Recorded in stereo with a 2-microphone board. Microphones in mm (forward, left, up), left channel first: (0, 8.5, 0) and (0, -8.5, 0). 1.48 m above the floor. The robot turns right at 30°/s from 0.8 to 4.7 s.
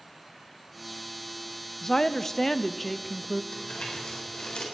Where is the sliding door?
I don't hear a sliding door.